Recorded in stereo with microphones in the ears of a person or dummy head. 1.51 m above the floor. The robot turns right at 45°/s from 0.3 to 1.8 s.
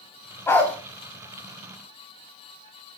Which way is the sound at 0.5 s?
15° left (ahead or behind).